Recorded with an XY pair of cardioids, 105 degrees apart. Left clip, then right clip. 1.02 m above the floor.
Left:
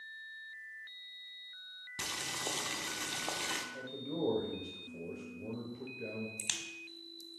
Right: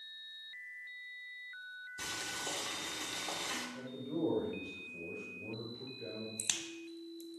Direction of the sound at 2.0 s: 45° left.